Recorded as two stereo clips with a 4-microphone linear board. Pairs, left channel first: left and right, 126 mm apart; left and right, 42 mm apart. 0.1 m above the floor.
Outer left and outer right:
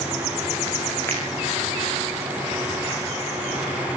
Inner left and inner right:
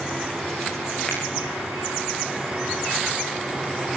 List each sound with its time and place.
1.1 s a finger snap: 20° left (ahead or behind), 8 m